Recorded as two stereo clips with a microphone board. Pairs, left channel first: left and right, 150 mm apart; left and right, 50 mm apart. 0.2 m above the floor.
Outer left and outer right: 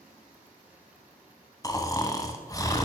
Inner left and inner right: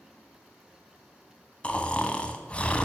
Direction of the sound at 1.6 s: 25° left (ahead or behind).